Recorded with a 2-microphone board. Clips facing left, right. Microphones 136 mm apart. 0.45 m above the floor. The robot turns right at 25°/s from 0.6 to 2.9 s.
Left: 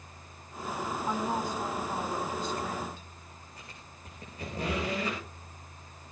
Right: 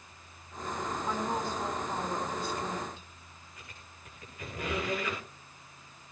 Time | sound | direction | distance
1.1 | a woman speaking | 160° left | 4 m
3.6 | a squeak | 35° left (ahead or behind) | 7.5 m